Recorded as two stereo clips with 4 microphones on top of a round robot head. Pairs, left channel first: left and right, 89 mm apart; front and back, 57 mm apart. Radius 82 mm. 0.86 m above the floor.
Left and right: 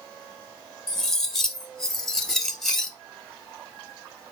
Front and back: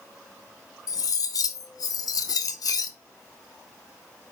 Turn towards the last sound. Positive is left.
turn(degrees=5)